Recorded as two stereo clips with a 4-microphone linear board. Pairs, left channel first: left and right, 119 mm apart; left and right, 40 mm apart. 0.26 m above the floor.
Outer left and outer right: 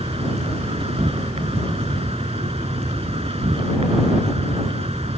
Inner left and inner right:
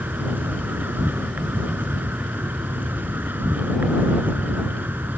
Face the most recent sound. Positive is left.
turn(degrees=-65)  # may be behind; listen again after turning